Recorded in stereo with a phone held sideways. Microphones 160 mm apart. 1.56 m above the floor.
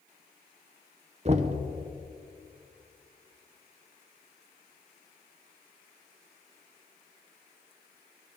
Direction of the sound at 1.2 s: 40° right (ahead or behind).